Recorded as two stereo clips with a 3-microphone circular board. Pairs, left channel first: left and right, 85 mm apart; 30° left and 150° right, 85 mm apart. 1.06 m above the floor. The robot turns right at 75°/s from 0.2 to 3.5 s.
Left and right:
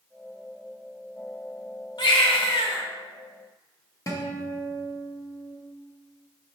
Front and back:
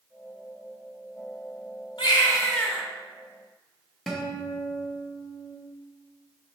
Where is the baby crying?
55° left, 0.7 m; by 2.8 s 120° left, 0.7 m.